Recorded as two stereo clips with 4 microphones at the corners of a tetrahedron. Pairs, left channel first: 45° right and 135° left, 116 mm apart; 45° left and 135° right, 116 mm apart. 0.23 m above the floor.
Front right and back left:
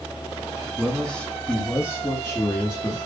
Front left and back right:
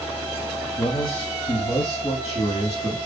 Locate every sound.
0.8 s a man speaking: 45° left, 1.4 m; by 3.0 s 5° left, 2 m